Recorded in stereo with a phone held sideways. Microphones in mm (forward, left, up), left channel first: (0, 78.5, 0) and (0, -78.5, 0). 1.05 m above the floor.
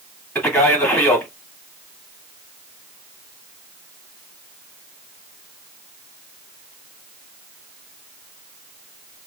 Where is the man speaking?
5° left (ahead or behind), 1.9 m.